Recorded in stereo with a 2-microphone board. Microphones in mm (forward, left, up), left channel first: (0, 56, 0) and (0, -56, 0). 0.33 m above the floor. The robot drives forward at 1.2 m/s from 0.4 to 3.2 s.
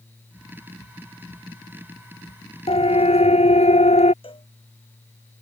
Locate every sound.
2.7 s a siren: 60° left (ahead or behind); by 4.1 s 75° left (ahead or behind)
4.2 s a cowbell: 55° left (ahead or behind)